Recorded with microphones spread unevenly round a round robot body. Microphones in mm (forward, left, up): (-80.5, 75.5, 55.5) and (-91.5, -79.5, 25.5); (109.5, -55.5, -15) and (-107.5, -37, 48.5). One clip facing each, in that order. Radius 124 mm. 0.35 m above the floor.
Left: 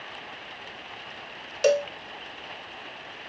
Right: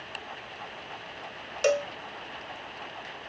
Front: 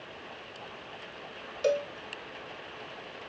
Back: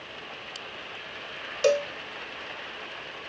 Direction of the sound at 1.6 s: 140° left.